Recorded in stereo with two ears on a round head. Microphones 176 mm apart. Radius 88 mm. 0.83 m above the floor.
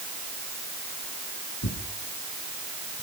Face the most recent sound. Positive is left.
turn(degrees=85)